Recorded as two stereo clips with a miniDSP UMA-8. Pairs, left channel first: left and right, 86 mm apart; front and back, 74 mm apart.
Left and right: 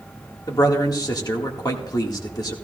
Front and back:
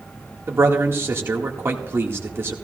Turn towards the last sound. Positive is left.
turn(degrees=125)